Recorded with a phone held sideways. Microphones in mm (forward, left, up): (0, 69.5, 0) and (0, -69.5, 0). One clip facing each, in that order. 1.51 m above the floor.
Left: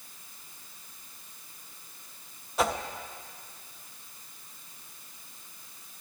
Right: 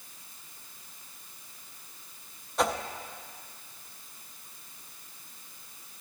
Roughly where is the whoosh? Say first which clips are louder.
Even; centre.